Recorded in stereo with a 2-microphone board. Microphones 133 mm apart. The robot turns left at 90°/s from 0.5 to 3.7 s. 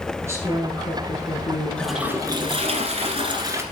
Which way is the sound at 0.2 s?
155° right.